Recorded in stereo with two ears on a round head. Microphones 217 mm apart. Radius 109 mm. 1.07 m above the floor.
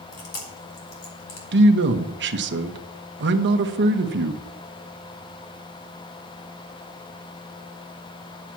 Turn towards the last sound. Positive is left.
turn(degrees=-50)  # may be behind; listen again after turning